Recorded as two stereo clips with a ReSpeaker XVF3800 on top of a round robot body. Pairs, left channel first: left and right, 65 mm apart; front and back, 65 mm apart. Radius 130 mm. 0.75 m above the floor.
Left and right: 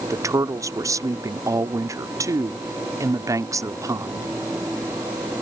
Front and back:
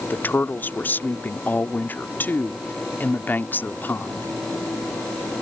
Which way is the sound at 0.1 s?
60° right.